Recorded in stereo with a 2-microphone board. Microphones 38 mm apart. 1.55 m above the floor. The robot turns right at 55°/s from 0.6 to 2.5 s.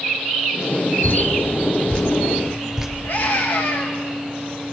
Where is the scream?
80° left, 3 m.